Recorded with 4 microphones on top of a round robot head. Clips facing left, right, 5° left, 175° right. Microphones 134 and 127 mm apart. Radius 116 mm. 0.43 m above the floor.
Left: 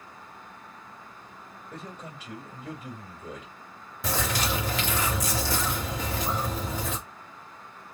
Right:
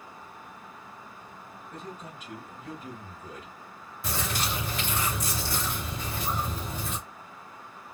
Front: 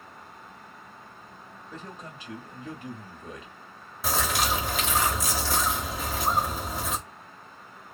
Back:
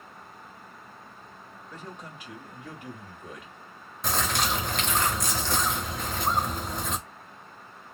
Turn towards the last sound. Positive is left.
turn(degrees=95)